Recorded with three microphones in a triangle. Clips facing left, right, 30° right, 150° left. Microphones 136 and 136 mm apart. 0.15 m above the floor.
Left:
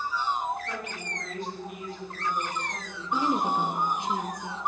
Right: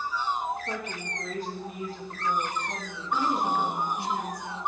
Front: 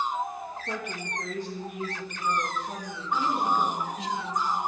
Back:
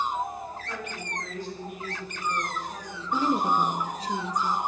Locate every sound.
0.7 s a woman speaking: 45° right, 5 m; by 4.1 s 40° right, 7 m
3.1 s a woman speaking: 150° left, 1.5 m